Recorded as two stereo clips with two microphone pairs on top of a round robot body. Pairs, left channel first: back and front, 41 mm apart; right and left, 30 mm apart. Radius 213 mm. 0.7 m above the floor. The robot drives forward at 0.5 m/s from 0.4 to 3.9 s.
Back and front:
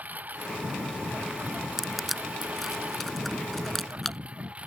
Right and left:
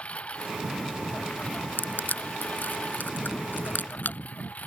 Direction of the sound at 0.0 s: 50° right.